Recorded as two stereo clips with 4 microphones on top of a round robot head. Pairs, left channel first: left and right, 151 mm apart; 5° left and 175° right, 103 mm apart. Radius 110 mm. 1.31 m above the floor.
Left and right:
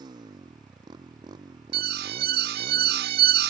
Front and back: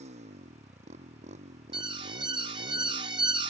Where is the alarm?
120° right.